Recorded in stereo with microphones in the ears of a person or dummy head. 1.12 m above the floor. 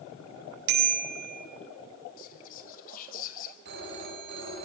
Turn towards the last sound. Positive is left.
turn(degrees=-55)  # may be behind; listen again after turning